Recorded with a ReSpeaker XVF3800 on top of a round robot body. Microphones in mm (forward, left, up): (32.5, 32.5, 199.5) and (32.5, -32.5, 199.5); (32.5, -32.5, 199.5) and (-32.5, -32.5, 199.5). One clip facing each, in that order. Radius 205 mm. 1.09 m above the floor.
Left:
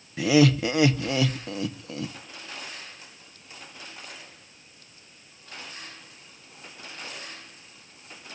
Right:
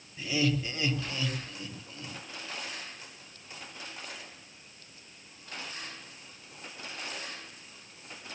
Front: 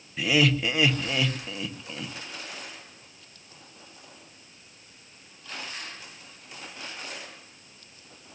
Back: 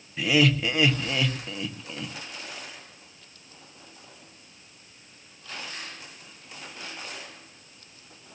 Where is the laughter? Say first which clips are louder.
Left 10 dB, back 1 dB; 90° left, 1.2 m.